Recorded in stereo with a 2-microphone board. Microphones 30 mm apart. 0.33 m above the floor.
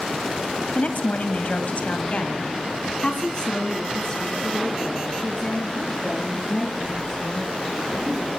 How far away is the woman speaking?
About 1.8 m.